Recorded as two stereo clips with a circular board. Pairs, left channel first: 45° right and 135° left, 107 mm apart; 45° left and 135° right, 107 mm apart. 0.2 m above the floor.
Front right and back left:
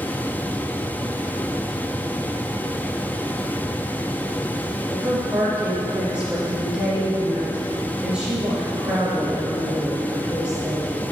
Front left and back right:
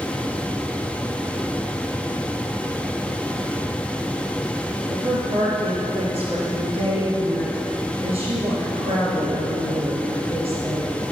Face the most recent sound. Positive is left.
turn(degrees=-145)